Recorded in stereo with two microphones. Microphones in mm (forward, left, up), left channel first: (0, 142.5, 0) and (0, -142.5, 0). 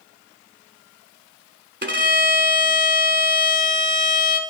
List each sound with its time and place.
1.8 s a violin: 40° right (ahead or behind), 1.1 m